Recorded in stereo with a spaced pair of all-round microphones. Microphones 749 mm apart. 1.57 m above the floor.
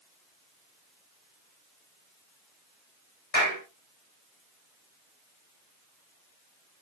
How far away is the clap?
About 7.5 m.